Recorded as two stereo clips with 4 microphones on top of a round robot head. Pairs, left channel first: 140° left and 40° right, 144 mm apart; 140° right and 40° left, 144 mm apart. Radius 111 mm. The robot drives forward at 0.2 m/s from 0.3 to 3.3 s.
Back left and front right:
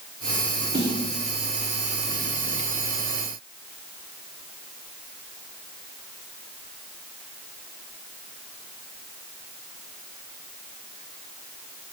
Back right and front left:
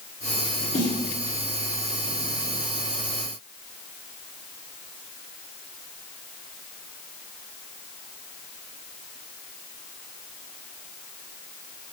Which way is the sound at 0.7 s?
100° right.